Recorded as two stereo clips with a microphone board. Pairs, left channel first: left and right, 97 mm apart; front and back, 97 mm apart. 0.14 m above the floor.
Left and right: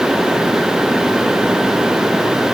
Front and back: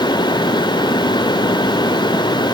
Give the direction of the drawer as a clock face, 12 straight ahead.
No drawer in this recording.